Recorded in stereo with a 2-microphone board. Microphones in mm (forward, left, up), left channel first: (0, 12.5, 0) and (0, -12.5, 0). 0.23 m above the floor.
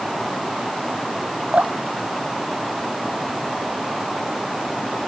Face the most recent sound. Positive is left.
turn(degrees=-80)